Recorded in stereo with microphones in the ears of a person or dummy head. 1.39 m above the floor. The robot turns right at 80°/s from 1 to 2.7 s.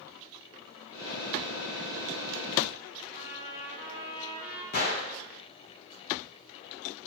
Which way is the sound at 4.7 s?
50° left (ahead or behind).